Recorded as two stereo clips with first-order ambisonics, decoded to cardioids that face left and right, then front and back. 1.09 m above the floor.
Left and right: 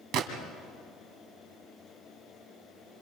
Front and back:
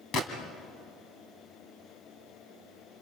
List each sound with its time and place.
0.1 s a gunshot: 55° right, 2.5 m